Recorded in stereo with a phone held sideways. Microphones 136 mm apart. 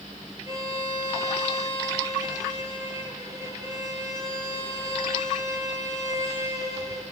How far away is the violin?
About 3.5 m.